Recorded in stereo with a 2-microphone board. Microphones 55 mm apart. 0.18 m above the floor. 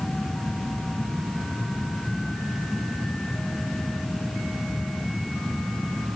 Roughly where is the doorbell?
No doorbell in this recording.